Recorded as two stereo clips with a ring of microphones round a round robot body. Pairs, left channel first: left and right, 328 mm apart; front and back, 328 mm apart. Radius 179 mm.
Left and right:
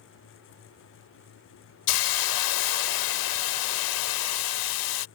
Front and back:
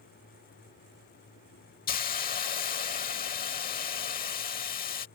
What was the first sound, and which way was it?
A hiss, 65° left.